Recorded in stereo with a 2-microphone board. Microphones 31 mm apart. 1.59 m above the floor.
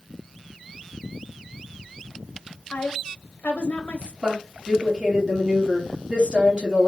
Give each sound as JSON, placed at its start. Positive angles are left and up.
{"t": 2.7, "sound": "a woman speaking", "side_deg": 55, "distance_m": 0.8}
{"t": 4.2, "sound": "a woman speaking", "side_deg": -20, "distance_m": 1.8}